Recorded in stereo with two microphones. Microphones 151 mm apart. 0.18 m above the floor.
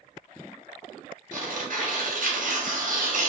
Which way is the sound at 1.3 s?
65° right (ahead or behind).